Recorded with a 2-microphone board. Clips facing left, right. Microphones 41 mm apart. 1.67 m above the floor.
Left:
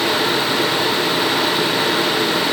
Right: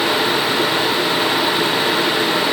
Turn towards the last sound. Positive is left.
No sound to turn to.